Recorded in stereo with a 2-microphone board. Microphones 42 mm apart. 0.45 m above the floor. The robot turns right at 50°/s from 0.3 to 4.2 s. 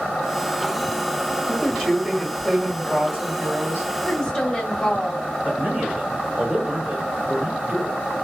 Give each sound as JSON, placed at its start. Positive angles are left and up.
{"t": 1.5, "sound": "a woman speaking", "azimuth_deg": 135, "distance_m": 2.0}
{"t": 4.0, "sound": "a woman speaking", "side_deg": 20, "distance_m": 1.0}
{"t": 5.4, "sound": "a man speaking", "side_deg": -50, "distance_m": 1.7}